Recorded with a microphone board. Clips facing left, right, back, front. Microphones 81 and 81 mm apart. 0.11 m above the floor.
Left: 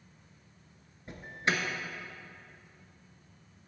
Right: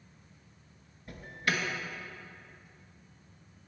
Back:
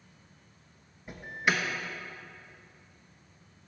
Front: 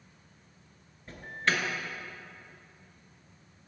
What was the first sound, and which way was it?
An alarm, 115° left.